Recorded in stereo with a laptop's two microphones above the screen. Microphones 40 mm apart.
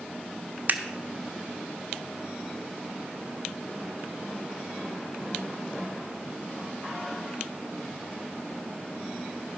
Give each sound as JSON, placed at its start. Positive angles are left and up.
{"t": 0.7, "sound": "scissors", "side_deg": -50, "distance_m": 1.2}